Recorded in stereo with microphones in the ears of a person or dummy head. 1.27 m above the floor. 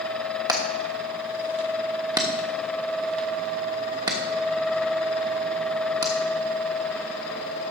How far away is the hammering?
About 1.1 m.